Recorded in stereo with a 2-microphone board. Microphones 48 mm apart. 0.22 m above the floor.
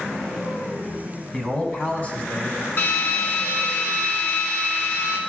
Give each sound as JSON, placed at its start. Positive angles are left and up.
{"t": 1.3, "sound": "a man speaking", "side_deg": 15, "distance_m": 2.0}
{"t": 2.8, "sound": "a drill", "side_deg": 40, "distance_m": 2.0}